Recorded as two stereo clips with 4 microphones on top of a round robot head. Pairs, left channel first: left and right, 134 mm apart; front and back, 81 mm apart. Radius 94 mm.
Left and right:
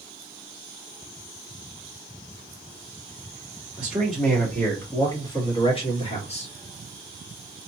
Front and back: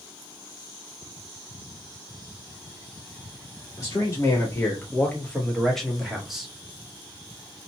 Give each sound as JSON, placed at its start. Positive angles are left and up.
{"t": 3.8, "sound": "a man speaking", "azimuth_deg": -10, "distance_m": 1.4}